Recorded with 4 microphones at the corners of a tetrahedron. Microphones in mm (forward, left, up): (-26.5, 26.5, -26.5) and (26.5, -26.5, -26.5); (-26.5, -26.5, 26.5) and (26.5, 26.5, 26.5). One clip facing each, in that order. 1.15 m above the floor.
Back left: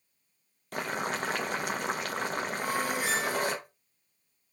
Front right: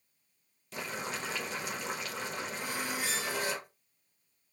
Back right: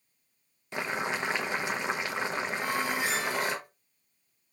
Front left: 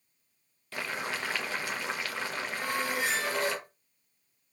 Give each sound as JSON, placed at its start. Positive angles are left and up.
{"t": 0.7, "sound": "boiling", "azimuth_deg": 160, "distance_m": 0.7}
{"t": 2.6, "sound": "a squeak", "azimuth_deg": 100, "distance_m": 3.5}